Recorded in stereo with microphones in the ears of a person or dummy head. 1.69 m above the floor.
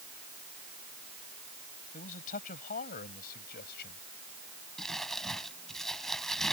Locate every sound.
1.9 s a man speaking: 45° left (ahead or behind); by 4.0 s 60° left (ahead or behind)
4.8 s crumpling: centre (ahead or behind)